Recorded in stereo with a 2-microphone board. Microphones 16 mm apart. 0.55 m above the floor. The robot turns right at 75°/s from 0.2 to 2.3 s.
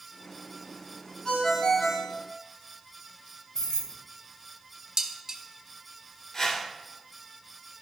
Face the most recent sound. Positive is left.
turn(degrees=50)  # may be behind; listen again after turning